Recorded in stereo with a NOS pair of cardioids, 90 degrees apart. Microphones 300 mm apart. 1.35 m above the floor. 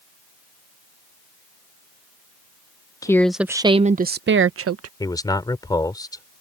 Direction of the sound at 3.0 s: 10° left.